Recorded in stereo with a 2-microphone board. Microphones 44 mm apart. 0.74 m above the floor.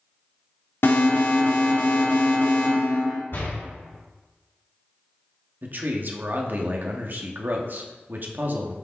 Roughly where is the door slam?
Left.